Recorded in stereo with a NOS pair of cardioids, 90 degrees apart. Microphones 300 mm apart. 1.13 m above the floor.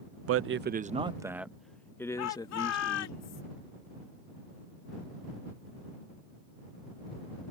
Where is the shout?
70° left.